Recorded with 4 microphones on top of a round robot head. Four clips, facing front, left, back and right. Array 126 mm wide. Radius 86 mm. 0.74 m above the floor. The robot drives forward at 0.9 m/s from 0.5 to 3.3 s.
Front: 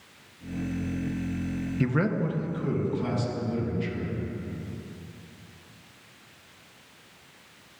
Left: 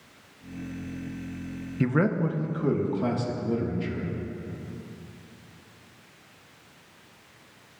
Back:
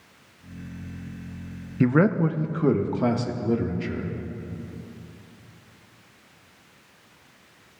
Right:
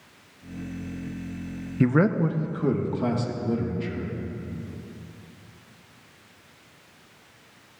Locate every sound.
1.8 s a man speaking: 145° right, 0.7 m; by 4.1 s 175° right, 1.7 m